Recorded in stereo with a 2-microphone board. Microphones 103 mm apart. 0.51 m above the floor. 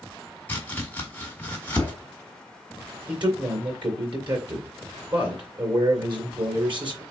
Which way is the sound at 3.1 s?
50° right (ahead or behind).